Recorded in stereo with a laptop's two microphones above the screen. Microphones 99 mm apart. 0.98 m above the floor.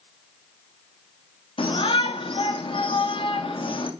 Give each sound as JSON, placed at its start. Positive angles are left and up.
{"t": 1.6, "sound": "a shout", "side_deg": 60, "distance_m": 1.4}